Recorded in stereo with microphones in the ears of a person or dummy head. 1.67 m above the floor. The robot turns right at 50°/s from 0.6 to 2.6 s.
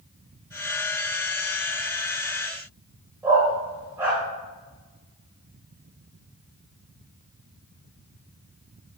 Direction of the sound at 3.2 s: 15° right (ahead or behind).